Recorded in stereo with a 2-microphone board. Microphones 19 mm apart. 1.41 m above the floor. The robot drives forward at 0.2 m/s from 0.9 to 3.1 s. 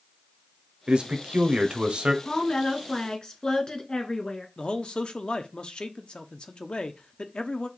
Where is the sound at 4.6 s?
55° left (ahead or behind), 0.7 m.